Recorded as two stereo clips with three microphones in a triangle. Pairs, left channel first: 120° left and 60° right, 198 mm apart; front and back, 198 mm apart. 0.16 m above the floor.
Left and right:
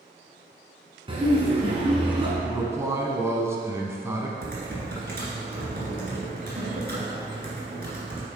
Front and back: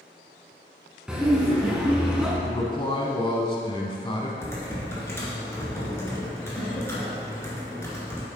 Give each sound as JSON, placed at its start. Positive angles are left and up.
{"t": 1.1, "sound": "laughter", "azimuth_deg": -95, "distance_m": 1.7}
{"t": 2.4, "sound": "a man speaking", "azimuth_deg": -5, "distance_m": 1.0}
{"t": 4.4, "sound": "typing on a keyboard", "azimuth_deg": -75, "distance_m": 2.0}